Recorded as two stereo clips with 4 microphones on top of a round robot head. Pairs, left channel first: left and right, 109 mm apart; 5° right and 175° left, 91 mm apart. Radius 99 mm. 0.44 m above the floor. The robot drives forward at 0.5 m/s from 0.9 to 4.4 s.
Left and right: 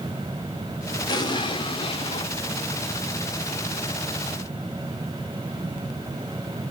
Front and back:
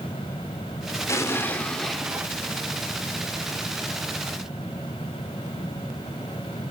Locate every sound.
1.1 s an explosion: 45° left, 0.8 m; by 2.3 s 100° left, 0.7 m